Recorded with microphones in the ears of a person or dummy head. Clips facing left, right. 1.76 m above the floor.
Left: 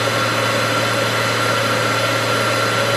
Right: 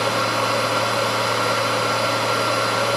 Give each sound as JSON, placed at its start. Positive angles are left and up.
{"t": 0.0, "sound": "a machine running", "side_deg": 25, "distance_m": 0.7}